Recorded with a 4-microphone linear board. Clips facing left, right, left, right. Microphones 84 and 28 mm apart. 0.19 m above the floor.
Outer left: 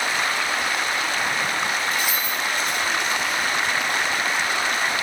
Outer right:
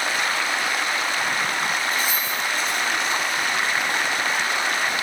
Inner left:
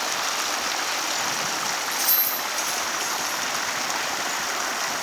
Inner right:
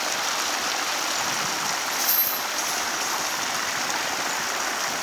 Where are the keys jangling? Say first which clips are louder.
Even, even; 65° left (ahead or behind), 2.5 m.